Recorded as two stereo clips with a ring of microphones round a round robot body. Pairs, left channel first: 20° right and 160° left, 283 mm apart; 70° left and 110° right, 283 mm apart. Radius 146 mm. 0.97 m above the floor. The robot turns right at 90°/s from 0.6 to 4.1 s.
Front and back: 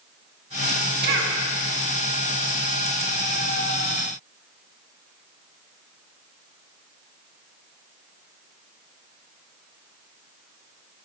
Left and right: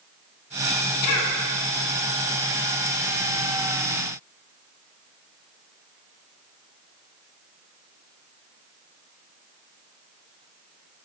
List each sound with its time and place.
1.0 s a cough: 100° left, 1.3 m; by 1.3 s 130° left, 1.3 m